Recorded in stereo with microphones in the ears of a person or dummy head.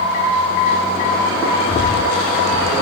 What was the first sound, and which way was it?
Breathing, 45° left (ahead or behind).